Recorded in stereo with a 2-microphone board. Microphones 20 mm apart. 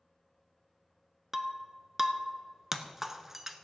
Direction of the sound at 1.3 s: 20° right (ahead or behind).